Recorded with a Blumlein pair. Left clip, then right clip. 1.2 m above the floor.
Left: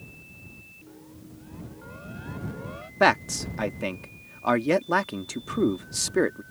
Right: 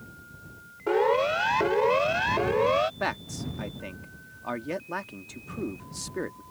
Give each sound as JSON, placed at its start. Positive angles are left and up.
{"t": 0.9, "sound": "a siren", "azimuth_deg": -45}
{"t": 3.0, "sound": "a man speaking", "azimuth_deg": 25}